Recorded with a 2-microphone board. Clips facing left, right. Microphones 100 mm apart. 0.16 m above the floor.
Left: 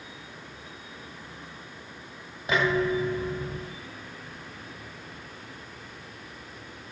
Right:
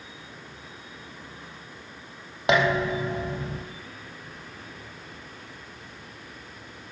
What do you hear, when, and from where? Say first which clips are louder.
2.5 s dishes clattering: right 2 dB; 80° right, 4 m